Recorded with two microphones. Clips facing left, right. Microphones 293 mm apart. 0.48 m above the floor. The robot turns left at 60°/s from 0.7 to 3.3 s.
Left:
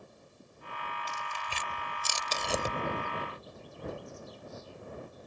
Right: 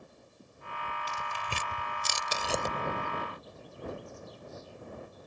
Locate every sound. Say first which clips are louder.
1.1 s tearing paper: right 3 dB; 70° right (ahead or behind); by 2.8 s 15° left (ahead or behind)